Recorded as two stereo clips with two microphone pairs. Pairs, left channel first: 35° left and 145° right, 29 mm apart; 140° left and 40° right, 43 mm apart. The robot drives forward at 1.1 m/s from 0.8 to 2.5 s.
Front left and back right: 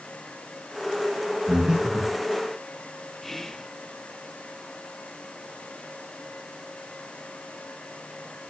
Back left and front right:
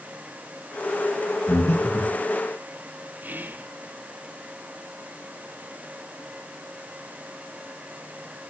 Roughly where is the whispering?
Ahead right.